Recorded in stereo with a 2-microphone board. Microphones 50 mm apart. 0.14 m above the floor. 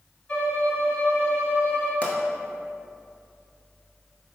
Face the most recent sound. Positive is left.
turn(degrees=30)  # may be behind; listen again after turning